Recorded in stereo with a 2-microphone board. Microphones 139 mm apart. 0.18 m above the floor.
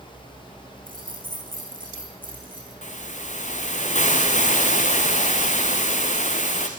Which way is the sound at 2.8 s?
60° left (ahead or behind).